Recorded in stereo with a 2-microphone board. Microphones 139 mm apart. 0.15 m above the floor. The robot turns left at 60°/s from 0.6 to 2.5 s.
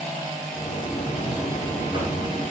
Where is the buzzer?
10° left, 1.9 m; by 2.4 s 80° right, 1.9 m.